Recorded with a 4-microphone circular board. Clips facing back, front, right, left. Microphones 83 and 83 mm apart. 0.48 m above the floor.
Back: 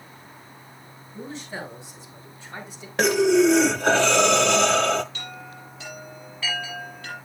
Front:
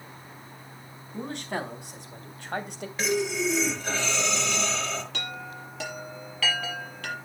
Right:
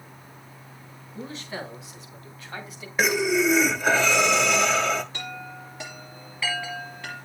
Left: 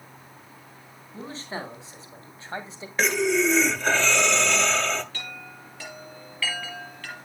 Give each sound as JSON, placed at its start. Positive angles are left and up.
{"t": 1.1, "sound": "a man speaking", "azimuth_deg": 30, "distance_m": 4.5}
{"t": 3.0, "sound": "breathing", "azimuth_deg": -170, "distance_m": 1.0}
{"t": 5.1, "sound": "a chime", "azimuth_deg": -20, "distance_m": 5.5}